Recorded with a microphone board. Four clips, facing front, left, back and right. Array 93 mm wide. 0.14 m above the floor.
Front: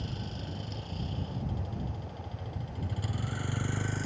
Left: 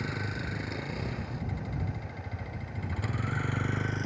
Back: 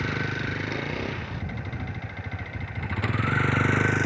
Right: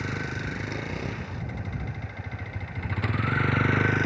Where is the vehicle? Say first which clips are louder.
Right 3 dB, back 11 dB; 165° right; by 4.1 s 140° right.